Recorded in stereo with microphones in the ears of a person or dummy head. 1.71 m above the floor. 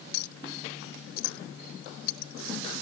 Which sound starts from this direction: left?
A clink, at 0.1 s.